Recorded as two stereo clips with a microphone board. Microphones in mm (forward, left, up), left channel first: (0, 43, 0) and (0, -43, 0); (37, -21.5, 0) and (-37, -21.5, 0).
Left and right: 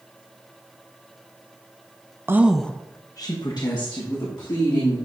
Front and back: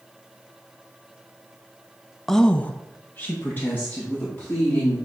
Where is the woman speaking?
80° right, 0.5 m; by 5.0 s 65° left, 2.5 m.